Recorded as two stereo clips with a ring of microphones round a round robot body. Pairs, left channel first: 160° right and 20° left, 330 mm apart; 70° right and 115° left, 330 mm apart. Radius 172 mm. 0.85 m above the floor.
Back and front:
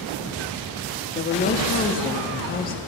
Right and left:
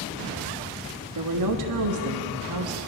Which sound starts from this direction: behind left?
A woman speaking, at 1.1 s.